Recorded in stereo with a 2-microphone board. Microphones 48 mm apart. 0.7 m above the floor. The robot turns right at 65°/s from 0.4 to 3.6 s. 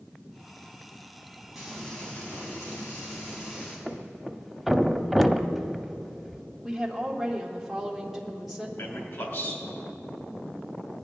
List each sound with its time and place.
1.6 s frying: 5° right, 4 m; by 3.8 s 130° left, 4 m
3.9 s a thud: centre (ahead or behind), 0.6 m
6.6 s a woman speaking: 5° right (ahead or behind), 1.7 m
8.8 s a man speaking: 60° left (ahead or behind), 3 m